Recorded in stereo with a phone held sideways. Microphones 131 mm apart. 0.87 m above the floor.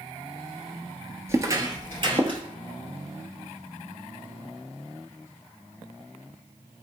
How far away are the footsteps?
About 0.9 m.